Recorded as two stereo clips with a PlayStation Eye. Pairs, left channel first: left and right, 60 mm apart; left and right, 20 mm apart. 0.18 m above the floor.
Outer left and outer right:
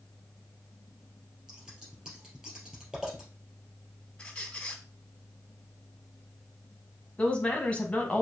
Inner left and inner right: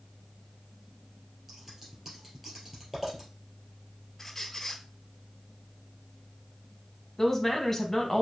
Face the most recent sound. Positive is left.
turn(degrees=20)  # may be behind; listen again after turning